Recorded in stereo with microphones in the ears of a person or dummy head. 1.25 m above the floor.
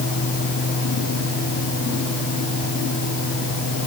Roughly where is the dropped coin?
I don't hear a dropped coin.